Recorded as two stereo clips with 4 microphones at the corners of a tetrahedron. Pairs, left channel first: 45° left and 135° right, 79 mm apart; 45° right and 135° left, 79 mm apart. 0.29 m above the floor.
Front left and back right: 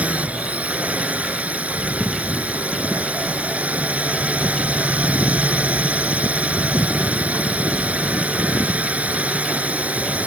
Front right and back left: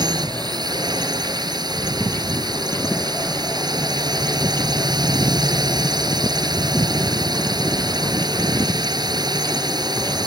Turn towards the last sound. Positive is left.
turn(degrees=155)